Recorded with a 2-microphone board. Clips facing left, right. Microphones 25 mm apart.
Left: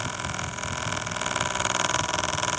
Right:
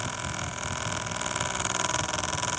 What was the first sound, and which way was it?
Only background noise.